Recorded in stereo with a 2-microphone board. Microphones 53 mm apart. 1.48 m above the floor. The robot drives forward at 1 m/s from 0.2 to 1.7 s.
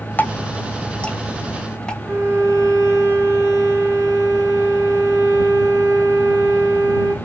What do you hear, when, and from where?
0.2 s dripping: 35° left (ahead or behind), 1.1 m; by 1.9 s 15° left (ahead or behind), 2.5 m
2.0 s a violin: 50° right (ahead or behind), 3.5 m